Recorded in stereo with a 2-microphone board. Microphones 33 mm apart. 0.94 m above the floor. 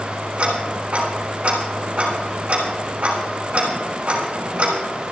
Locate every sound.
0.4 s ticking: 45° right (ahead or behind), 4.5 m